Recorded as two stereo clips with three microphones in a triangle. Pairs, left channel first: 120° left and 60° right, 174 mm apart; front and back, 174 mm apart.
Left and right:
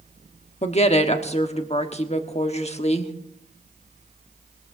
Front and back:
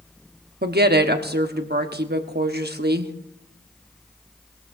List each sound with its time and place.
0.6 s a woman speaking: 170° left, 1.1 m